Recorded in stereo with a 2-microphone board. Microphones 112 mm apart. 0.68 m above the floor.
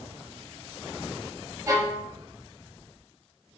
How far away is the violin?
About 1.4 m.